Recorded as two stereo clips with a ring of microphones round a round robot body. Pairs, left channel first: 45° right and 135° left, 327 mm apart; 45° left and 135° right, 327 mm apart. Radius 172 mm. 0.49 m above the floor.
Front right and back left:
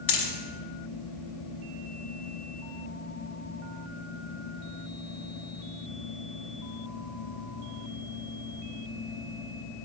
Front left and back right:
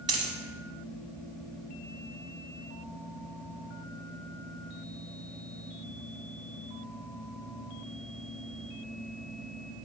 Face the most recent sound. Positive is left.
turn(degrees=-60)